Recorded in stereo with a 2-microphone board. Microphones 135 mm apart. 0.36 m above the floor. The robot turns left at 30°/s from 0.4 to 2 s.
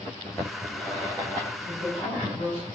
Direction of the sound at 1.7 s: 65° left (ahead or behind).